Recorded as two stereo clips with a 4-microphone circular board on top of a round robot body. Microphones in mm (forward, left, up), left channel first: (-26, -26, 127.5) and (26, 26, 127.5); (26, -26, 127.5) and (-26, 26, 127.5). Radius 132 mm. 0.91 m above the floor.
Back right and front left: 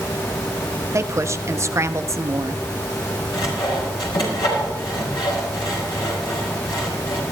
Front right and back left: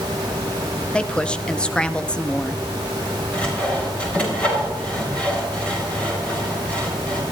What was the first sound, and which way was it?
A woman speaking, 25° left.